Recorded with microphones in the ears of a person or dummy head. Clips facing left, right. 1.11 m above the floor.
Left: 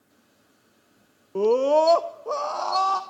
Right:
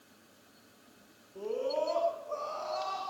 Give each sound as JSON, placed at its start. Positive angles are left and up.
{"t": 1.4, "sound": "a scream", "side_deg": 65, "distance_m": 0.9}